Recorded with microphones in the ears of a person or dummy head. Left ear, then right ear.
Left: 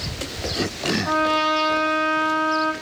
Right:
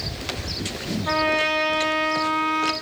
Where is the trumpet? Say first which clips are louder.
Even; 30° left (ahead or behind), 1.2 m.